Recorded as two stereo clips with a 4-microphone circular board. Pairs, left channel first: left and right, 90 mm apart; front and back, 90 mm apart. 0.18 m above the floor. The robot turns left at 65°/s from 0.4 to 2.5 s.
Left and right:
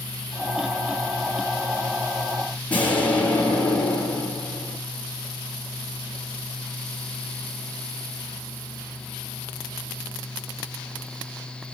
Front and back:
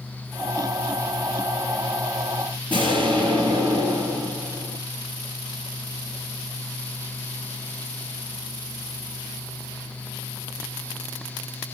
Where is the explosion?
160° left, 4 m.